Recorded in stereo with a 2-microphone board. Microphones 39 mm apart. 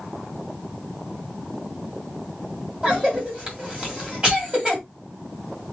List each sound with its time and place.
2.8 s a cough: 25° right (ahead or behind), 1.6 m